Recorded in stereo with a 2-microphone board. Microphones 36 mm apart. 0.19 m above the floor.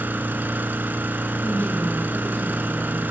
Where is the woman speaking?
55° left (ahead or behind), 7 m.